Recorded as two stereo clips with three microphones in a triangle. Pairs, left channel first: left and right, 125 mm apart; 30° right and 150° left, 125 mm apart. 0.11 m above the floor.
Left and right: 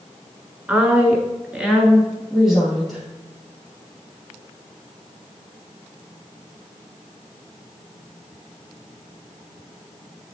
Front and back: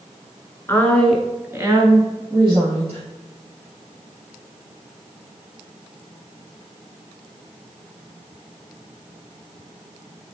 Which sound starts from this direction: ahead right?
A woman speaking, at 0.7 s.